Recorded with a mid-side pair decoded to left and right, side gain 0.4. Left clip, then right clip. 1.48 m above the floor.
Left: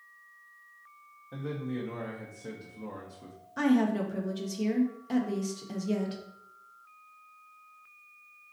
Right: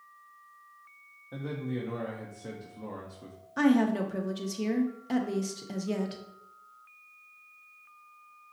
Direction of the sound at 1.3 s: 10° right.